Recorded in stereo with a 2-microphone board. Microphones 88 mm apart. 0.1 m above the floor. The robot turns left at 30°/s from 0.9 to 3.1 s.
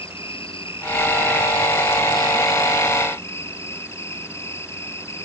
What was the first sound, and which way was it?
An insect, 95° left.